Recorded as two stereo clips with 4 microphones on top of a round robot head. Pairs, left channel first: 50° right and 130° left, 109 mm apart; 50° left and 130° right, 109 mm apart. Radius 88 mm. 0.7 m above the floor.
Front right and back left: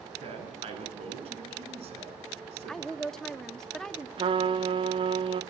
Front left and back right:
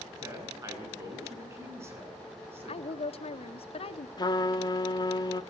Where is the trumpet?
95° left, 1.4 m.